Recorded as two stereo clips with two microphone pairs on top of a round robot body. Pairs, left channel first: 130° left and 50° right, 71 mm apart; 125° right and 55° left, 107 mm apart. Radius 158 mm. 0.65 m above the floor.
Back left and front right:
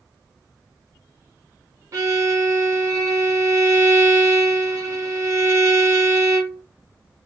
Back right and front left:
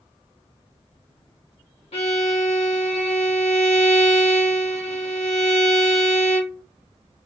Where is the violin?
95° right, 0.8 m.